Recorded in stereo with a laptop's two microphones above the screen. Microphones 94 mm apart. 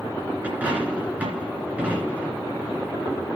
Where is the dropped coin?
15° right (ahead or behind), 2 m.